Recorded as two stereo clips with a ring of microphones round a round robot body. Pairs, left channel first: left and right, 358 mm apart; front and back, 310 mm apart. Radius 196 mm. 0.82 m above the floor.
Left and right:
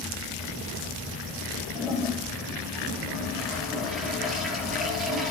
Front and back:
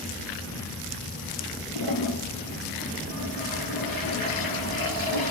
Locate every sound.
1.8 s a toilet flushing: straight ahead, 7.5 m